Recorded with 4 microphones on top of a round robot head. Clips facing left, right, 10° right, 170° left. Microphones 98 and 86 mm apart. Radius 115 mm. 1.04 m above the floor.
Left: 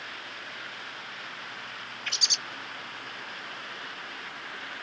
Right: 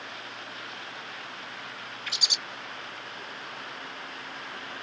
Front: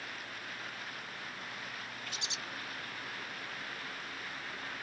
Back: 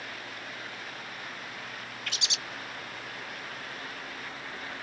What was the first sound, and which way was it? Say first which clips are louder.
A bird: left 1 dB, back 4 dB; 175° right.